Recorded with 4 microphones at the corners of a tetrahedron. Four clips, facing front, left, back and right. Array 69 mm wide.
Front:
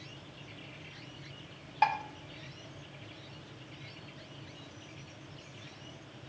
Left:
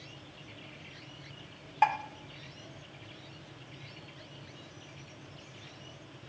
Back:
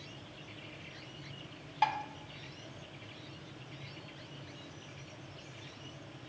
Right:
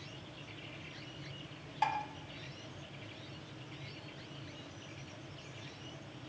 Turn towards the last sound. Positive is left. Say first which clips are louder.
# left 7 dB, front 3 dB
turn(degrees=75)